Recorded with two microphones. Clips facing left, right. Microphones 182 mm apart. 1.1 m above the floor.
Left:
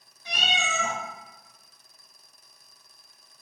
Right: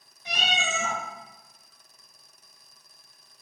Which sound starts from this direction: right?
A cat meowing, at 0.2 s.